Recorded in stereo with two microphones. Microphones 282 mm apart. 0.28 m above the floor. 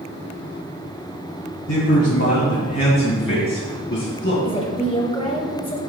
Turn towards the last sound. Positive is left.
turn(degrees=20)  # may be behind; listen again after turning